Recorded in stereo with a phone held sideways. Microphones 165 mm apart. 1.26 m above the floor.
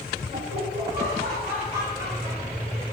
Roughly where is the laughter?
Right.